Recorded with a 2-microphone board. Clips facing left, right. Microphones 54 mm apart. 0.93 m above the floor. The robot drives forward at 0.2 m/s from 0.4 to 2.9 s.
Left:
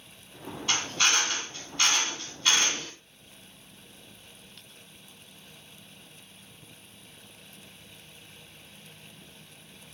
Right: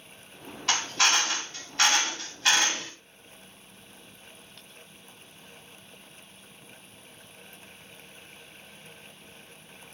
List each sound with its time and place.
0.7 s a drill: 65° right (ahead or behind), 2.5 m; by 2.9 s 75° right (ahead or behind), 2.5 m